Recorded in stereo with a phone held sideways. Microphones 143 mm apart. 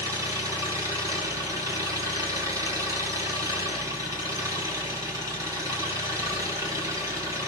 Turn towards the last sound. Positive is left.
turn(degrees=-20)  # may be behind; listen again after turning